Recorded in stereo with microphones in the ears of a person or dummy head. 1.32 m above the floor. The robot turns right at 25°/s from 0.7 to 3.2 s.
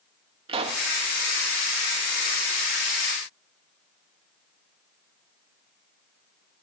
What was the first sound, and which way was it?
A pop, 35° right (ahead or behind).